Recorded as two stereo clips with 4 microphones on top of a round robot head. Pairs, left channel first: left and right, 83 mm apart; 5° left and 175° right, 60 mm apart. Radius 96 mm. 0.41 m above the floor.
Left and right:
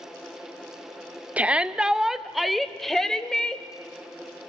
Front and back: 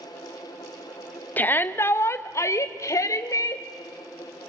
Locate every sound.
1.4 s a shout: 30° right, 1.7 m; by 3.6 s 10° left, 3 m